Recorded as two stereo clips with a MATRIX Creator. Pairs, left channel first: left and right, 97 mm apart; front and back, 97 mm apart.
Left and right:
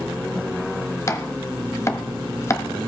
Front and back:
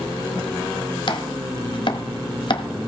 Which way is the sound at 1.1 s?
30° left.